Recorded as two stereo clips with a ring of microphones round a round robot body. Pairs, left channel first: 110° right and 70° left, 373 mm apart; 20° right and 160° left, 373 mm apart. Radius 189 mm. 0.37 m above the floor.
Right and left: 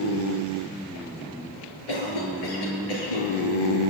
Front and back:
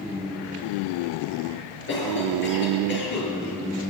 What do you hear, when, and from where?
1.9 s a cough: 85° right, 8 m